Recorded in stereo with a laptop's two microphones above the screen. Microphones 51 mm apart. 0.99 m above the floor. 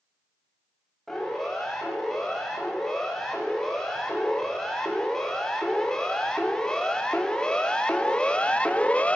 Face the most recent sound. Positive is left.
turn(degrees=25)  # may be behind; listen again after turning